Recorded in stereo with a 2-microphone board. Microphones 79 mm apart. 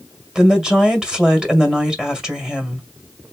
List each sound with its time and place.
0.3 s a woman speaking: 10° right (ahead or behind), 1.7 m